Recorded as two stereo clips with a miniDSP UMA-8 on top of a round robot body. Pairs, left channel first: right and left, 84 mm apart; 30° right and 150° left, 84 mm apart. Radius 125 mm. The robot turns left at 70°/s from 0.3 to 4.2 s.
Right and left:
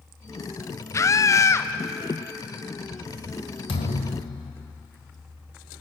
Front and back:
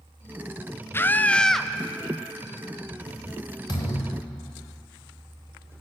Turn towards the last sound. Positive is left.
turn(degrees=-110)